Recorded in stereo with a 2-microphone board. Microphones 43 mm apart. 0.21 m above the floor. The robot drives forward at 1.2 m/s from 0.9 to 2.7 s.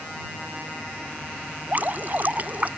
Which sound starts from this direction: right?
Dripping, at 1.7 s.